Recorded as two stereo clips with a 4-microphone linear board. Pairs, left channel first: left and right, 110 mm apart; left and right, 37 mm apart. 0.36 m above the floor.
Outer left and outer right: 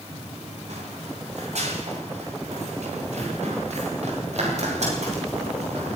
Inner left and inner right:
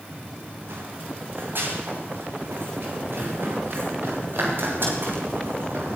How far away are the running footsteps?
About 9.5 m.